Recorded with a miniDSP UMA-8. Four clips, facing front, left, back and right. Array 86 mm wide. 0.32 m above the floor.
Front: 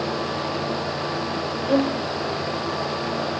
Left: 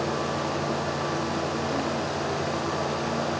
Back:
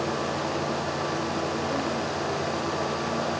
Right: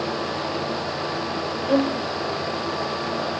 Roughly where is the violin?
Ahead right.